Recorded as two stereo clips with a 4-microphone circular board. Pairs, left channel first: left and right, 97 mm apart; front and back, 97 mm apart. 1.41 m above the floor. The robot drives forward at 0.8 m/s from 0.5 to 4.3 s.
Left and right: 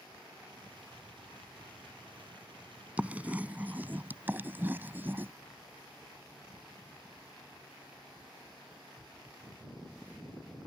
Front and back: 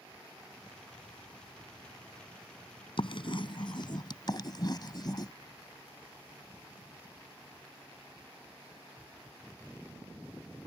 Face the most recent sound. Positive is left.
turn(degrees=-25)